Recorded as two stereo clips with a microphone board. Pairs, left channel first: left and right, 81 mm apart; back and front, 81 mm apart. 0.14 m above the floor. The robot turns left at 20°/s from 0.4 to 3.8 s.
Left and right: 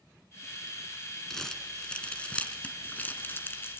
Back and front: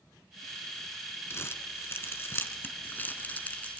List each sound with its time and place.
1.3 s crumpling: 170° left, 1.6 m; by 3.8 s 120° left, 1.6 m